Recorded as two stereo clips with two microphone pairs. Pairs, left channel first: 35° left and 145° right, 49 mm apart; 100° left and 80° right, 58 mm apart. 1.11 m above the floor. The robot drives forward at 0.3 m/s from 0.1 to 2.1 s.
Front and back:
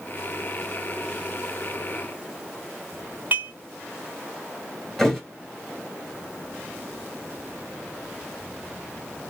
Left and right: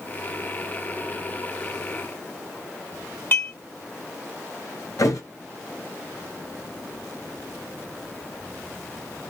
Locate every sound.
3.3 s dishes clattering: 155° left, 2.5 m
5.0 s a thud: 120° left, 3 m